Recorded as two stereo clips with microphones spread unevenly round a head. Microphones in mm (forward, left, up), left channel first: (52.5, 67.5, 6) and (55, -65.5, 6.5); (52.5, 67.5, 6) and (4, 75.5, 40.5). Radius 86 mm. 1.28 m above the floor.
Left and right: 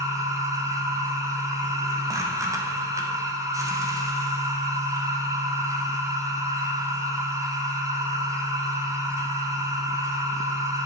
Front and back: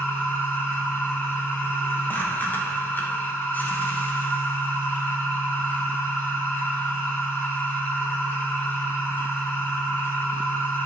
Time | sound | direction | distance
0.0 | a machine running | 25° right | 1.1 m